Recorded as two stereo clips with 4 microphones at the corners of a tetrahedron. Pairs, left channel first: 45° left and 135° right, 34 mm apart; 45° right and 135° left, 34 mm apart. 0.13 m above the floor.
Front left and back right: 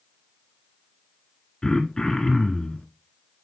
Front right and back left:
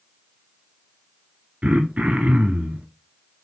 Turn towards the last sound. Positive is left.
turn(degrees=110)